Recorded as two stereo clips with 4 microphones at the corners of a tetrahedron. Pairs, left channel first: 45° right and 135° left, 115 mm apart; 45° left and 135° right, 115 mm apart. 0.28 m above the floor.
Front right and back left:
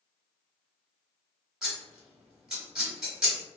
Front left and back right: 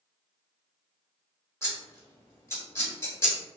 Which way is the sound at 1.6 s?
60° left.